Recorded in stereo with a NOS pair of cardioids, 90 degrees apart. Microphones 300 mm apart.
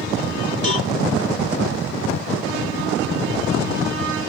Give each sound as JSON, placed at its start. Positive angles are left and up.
{"t": 0.6, "sound": "a cowbell", "azimuth_deg": 25, "distance_m": 3.5}